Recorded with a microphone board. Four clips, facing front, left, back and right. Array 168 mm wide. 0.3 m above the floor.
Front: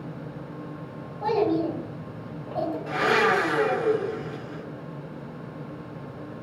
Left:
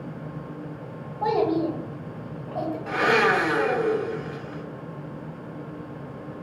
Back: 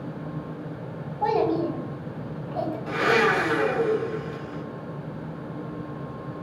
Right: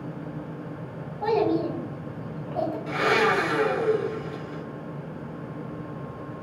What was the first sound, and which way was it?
A child speaking, 125° left.